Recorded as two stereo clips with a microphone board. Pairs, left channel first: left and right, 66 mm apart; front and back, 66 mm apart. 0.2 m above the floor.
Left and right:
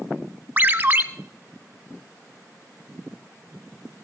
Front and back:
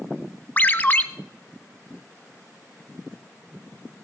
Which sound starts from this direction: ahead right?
A ringtone, at 0.6 s.